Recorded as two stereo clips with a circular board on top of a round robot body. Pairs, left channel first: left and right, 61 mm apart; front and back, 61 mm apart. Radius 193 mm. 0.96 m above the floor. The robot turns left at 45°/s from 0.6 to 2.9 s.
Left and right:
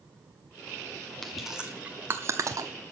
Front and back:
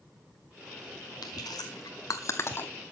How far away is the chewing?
About 0.8 m.